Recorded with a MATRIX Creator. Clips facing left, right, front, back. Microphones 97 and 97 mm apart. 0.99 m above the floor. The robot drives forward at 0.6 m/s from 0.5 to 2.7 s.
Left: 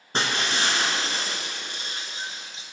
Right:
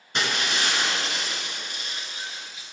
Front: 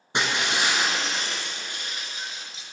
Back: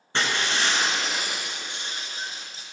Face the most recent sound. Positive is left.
turn(degrees=145)